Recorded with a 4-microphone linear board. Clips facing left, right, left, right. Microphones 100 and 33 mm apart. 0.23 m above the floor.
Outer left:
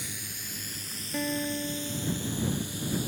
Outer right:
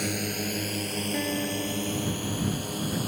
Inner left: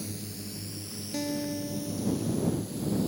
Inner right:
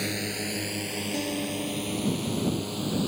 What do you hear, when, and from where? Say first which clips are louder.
0.0 s a drone: outer right 14 dB, inner right 9 dB; 65° right (ahead or behind); by 3.1 s 60° right (ahead or behind)
1.1 s a guitar: outer left 1 dB, inner left 1 dB; centre (ahead or behind)